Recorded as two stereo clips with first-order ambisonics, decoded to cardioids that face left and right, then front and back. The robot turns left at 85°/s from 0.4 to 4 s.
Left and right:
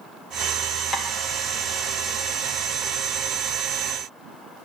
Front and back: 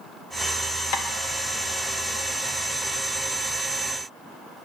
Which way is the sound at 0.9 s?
15° left.